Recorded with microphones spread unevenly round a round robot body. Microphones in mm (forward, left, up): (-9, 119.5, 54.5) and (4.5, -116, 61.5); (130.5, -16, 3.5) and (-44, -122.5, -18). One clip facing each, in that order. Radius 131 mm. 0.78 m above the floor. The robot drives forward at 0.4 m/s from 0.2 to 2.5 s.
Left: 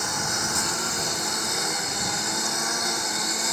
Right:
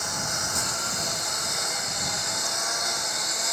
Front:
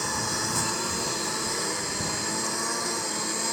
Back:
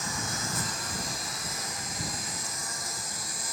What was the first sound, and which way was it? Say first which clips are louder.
A lawn mower: left 4 dB, front 5 dB; 70° left.